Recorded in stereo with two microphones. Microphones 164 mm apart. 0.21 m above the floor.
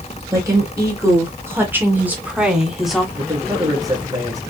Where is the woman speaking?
20° right (ahead or behind), 3 m; by 3.0 s centre (ahead or behind), 1.8 m.